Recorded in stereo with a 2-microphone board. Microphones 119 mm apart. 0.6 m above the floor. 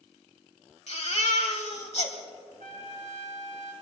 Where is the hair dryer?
No hair dryer in this recording.